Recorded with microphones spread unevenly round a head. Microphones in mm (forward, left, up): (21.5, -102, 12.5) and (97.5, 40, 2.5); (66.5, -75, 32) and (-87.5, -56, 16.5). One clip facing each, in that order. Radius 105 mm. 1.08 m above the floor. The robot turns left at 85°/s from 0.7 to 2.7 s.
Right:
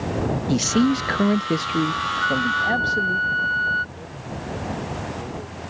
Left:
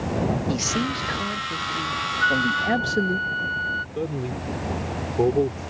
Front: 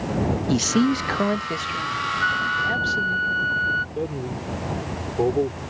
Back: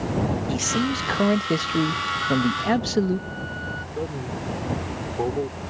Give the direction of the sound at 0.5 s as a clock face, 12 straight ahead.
2 o'clock.